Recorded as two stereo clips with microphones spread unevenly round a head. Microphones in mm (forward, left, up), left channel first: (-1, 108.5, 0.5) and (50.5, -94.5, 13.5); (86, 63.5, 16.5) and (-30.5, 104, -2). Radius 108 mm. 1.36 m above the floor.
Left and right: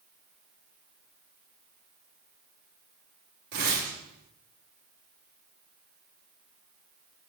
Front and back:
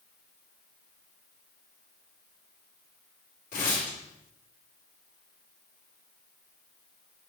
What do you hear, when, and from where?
3.5 s tearing paper: 35° right, 3 m